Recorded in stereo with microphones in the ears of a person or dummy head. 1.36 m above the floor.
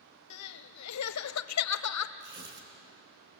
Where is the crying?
80° left, 0.7 m.